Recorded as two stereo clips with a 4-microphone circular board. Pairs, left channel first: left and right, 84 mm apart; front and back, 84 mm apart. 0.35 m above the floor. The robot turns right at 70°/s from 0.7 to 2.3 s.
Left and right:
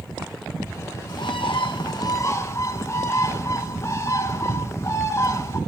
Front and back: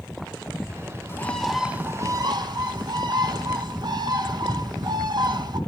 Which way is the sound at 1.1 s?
60° left.